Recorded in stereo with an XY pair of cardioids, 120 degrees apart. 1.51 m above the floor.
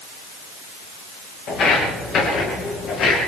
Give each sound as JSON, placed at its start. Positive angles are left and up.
{"t": 1.5, "sound": "footsteps", "azimuth_deg": 65, "distance_m": 9.5}